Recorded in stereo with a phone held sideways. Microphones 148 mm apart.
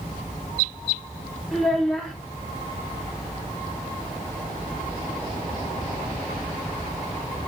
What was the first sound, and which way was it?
A child speaking, centre (ahead or behind).